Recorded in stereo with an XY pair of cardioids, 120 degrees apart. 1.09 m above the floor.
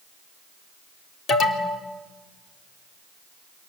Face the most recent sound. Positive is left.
turn(degrees=45)